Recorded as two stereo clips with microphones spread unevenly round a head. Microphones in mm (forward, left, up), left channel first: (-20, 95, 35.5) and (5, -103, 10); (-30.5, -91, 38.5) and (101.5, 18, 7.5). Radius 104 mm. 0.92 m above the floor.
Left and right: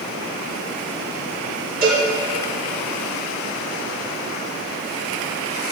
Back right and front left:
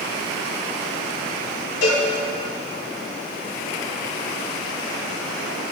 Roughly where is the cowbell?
Behind right.